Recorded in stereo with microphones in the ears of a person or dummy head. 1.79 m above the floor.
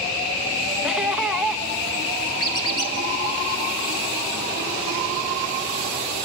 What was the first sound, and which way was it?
Laughter, centre (ahead or behind).